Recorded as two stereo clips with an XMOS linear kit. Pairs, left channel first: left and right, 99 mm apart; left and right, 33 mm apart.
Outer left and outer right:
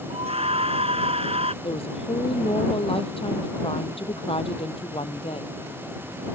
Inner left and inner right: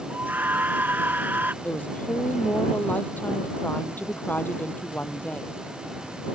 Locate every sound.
0.1 s a scream: 80° right
1.6 s a woman speaking: 70° left (ahead or behind)